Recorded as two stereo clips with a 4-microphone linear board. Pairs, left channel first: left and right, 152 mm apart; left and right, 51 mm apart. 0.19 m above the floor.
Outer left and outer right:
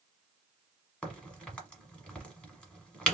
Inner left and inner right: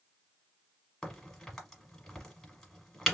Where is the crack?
5° left (ahead or behind), 1.1 m.